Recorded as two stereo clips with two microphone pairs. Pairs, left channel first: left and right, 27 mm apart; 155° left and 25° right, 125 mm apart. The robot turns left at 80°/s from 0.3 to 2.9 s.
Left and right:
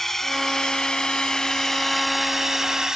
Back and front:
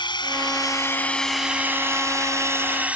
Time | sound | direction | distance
0.0 | a drone | 155° left | ?